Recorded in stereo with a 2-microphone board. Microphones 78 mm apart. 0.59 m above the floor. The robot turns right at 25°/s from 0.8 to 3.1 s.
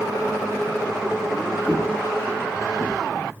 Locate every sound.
1.7 s footsteps: 50° left (ahead or behind), 1.2 m; by 3.4 s 5° left (ahead or behind), 0.5 m